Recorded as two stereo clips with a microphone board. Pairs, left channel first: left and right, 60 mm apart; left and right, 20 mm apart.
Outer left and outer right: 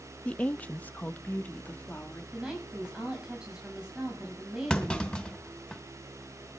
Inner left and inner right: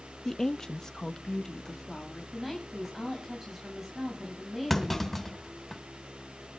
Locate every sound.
0.2 s a woman speaking: 20° left (ahead or behind), 0.6 m; by 2.2 s 30° left (ahead or behind), 2.5 m
2.3 s a woman speaking: 15° right (ahead or behind), 6 m
4.7 s a clunk: 15° left (ahead or behind), 2.5 m